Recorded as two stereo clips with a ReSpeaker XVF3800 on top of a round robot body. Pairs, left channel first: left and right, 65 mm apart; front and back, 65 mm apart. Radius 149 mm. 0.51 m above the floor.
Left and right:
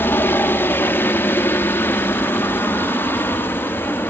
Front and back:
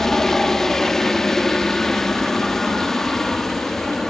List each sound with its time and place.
0.0 s a helicopter: 80° left